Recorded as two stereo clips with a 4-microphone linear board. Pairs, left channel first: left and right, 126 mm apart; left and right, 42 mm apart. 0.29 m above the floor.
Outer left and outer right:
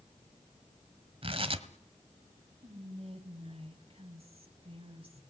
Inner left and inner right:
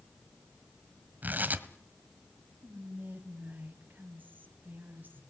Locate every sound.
1.2 s tearing paper: 45° right (ahead or behind), 1.6 m
2.6 s whispering: 45° right (ahead or behind), 2.5 m